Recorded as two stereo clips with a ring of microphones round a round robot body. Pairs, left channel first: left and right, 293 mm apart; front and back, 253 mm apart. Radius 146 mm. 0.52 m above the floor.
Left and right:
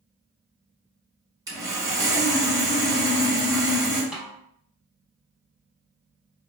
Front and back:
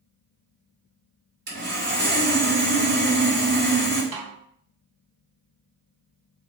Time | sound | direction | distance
1.5 | sawing | 160° right | 1.6 m
4.1 | a snare drum | 175° right | 0.9 m